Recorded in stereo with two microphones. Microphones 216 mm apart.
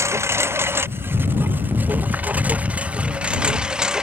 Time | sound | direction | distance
0.0 | a lawn mower | 10° right (ahead or behind) | ?